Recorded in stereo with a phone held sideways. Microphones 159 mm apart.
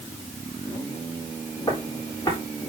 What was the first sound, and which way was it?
Footsteps, 20° left (ahead or behind).